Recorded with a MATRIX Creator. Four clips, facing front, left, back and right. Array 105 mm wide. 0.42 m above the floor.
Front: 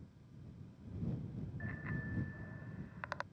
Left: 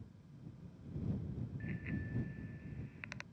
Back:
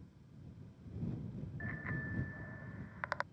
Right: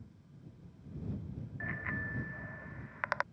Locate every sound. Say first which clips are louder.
1.6 s a bicycle bell: right 6 dB, back 2 dB; 95° right; by 3.2 s 100° right